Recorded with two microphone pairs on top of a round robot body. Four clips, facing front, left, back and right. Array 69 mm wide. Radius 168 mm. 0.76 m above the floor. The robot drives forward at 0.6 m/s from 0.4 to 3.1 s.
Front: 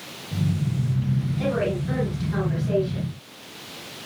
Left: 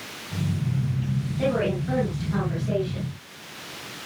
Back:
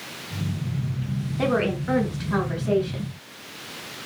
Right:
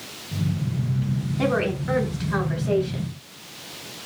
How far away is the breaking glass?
I don't hear breaking glass.